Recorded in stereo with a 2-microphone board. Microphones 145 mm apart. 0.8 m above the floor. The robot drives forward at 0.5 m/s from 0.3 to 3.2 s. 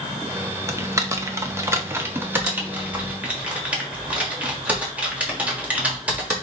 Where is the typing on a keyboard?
20° right (ahead or behind), 0.6 m; by 6.3 s 10° right (ahead or behind), 1.2 m.